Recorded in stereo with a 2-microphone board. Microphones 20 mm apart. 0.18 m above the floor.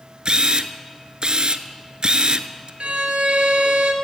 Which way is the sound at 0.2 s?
45° right (ahead or behind).